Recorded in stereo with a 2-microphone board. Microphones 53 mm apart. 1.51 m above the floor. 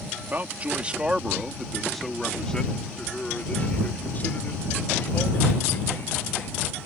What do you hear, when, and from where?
0.3 s a man speaking: 40° right (ahead or behind); by 6.7 s 50° left (ahead or behind)